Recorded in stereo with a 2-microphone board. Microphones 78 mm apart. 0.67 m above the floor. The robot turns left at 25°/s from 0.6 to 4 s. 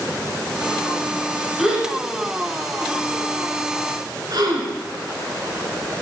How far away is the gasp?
About 1.5 m.